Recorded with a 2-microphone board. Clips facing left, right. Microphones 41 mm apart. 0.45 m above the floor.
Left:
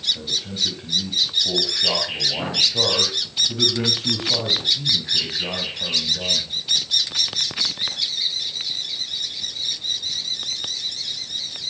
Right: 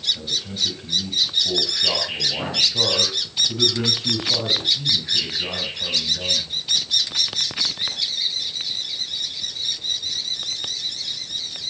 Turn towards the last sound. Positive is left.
turn(degrees=10)  # may be behind; listen again after turning